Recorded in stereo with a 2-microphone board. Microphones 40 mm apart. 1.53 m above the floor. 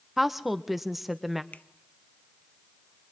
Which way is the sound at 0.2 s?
5° right (ahead or behind).